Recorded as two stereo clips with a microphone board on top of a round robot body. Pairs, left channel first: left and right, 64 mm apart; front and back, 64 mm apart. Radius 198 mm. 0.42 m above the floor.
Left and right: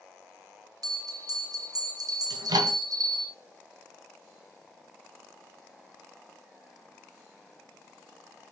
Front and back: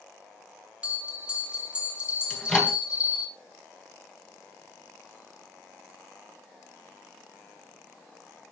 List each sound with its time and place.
0.8 s a bell: 105° right, 4.5 m
2.3 s a microwave: 80° right, 3.5 m